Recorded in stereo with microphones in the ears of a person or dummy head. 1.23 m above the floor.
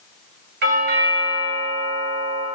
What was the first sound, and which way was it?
A doorbell, 50° right (ahead or behind).